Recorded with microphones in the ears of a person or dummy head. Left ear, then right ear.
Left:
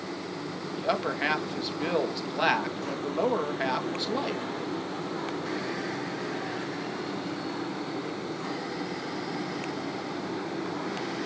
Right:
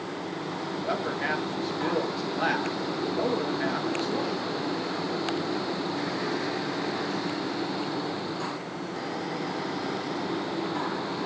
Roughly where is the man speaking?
Left.